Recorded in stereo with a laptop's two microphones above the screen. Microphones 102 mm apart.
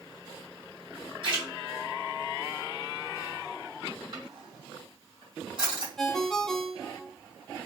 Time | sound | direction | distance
1.2 | a splash | 55° right (ahead or behind) | 3 m
4.1 | a drawer | 50° right (ahead or behind) | 3 m
6.0 | a ringtone | 5° left (ahead or behind) | 0.5 m